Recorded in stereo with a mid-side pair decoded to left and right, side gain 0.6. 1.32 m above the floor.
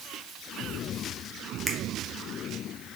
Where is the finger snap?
5° right, 0.8 m.